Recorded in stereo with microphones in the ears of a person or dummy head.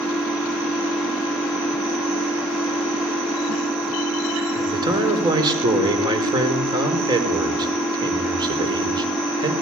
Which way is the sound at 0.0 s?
5° right (ahead or behind).